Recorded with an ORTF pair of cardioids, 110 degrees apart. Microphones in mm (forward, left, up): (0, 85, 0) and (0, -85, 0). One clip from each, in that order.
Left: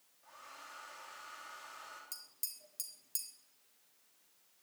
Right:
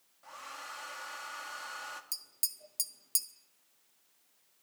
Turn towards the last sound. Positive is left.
turn(degrees=-40)